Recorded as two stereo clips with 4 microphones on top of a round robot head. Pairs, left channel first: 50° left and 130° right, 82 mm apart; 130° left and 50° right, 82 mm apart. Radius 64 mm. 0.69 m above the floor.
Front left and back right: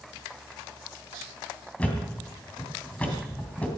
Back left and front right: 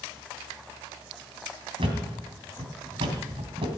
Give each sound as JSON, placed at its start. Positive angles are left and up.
{"t": 1.8, "sound": "a thud", "azimuth_deg": -25, "distance_m": 3.0}